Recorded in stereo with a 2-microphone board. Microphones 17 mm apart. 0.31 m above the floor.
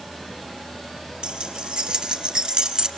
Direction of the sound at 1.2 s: 75° right (ahead or behind).